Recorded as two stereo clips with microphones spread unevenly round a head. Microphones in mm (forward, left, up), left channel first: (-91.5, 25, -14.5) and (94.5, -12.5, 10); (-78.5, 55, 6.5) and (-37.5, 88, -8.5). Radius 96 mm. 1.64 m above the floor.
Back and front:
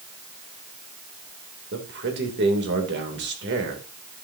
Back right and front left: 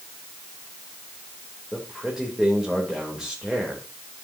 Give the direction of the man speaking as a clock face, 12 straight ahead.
2 o'clock.